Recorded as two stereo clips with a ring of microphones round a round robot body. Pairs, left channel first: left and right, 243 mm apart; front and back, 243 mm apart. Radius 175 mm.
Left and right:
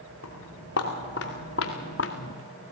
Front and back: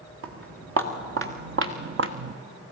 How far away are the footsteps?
About 4 m.